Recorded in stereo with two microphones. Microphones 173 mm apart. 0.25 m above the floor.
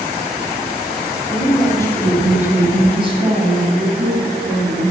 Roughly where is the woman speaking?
Left.